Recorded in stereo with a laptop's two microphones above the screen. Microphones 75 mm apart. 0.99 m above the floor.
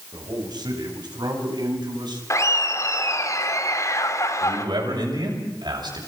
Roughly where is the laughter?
Left.